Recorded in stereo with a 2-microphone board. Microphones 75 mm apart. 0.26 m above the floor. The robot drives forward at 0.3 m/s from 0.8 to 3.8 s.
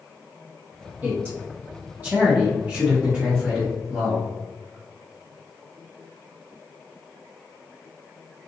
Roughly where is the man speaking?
Right.